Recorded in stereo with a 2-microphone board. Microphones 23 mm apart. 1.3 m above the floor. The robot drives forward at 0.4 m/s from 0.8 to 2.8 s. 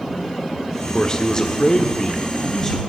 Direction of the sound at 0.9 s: 35° left (ahead or behind).